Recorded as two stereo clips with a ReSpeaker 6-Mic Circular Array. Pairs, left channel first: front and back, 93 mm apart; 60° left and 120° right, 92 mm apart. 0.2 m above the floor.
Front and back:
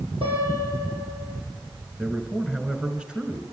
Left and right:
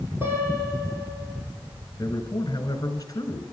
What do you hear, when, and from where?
0.2 s a piano: 175° left, 10 m
2.0 s a man speaking: 100° left, 2 m